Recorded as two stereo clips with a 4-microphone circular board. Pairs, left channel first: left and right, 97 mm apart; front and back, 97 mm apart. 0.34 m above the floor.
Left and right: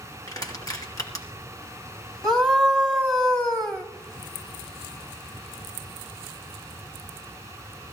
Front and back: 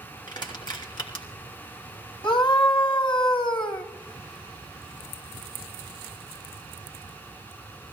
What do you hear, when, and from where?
0.3 s crushing: 40° left, 3 m
2.2 s a scream: 5° left, 1.8 m